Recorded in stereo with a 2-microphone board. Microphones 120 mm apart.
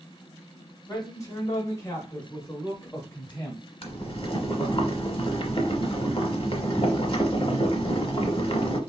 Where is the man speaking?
30° left (ahead or behind), 1.4 m; by 3.6 s 10° left (ahead or behind), 1.4 m.